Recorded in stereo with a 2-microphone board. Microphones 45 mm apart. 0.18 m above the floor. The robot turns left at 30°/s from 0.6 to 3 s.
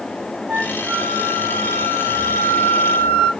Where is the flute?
35° right, 1.1 m; by 3.3 s 110° right, 1.1 m.